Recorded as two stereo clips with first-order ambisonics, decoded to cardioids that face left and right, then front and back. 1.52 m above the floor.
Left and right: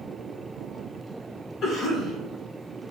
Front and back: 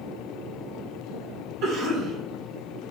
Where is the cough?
145° left, 1.5 m.